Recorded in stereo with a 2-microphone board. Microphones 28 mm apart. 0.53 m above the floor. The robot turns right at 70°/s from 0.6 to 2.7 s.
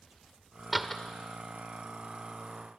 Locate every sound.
0.7 s a door slam: 5° right (ahead or behind), 1.3 m; by 1.0 s 10° left (ahead or behind), 1.3 m